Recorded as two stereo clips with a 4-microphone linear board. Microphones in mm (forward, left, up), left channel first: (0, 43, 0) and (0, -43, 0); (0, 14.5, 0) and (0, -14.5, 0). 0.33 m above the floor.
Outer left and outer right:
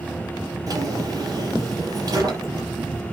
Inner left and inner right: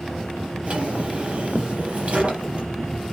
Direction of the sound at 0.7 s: 45° right (ahead or behind).